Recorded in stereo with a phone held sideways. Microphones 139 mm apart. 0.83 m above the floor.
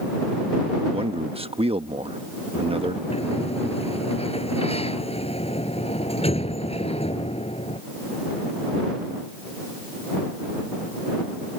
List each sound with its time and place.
0.9 s a man speaking: 45° right (ahead or behind)
3.1 s a sliding door: 45° left (ahead or behind)